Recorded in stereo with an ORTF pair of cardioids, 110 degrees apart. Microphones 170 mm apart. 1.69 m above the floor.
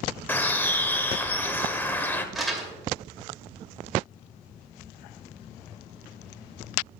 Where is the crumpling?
Straight ahead, 2.5 m.